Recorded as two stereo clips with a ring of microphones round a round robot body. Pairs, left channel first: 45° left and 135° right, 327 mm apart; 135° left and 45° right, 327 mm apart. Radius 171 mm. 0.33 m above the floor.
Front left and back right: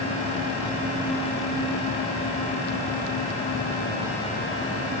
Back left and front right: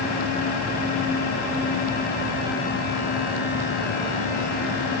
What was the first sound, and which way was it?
Only background noise.